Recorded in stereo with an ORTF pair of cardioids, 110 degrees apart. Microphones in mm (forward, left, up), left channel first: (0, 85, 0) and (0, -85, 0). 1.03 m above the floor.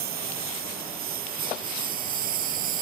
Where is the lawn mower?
65° right; by 2.8 s 55° right.